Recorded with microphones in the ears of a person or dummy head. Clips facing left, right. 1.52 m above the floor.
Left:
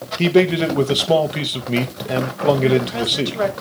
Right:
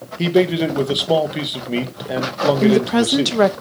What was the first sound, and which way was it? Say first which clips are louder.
A man speaking: left 1 dB; 5° right (ahead or behind).